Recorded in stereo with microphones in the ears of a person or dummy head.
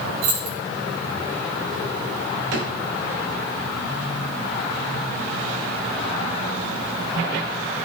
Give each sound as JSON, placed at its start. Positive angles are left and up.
{"t": 0.2, "sound": "keys jangling", "side_deg": -80, "distance_m": 4.5}
{"t": 2.5, "sound": "a drawer", "side_deg": -65, "distance_m": 2.5}